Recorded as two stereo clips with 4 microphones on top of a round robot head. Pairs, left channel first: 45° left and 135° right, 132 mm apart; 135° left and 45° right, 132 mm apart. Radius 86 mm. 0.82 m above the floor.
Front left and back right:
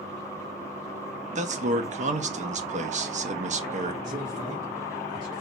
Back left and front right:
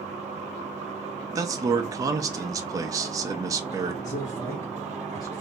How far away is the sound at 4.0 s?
About 2.5 m.